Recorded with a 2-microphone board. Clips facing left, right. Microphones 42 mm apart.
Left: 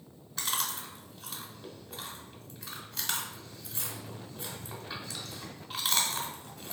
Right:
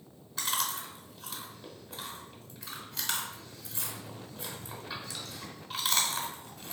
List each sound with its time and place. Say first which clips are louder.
0.4 s chewing: right 1 dB; centre (ahead or behind), 0.9 m